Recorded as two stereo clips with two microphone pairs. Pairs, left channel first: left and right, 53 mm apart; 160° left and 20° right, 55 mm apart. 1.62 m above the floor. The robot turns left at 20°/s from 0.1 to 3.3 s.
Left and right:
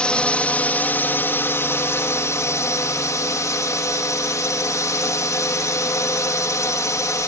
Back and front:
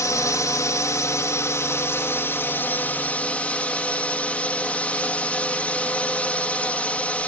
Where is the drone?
160° left; by 7.3 s 95° left.